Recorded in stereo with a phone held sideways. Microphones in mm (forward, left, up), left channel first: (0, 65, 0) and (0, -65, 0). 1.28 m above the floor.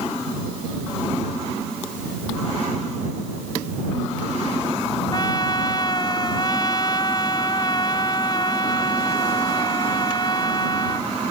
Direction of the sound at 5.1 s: 35° left (ahead or behind).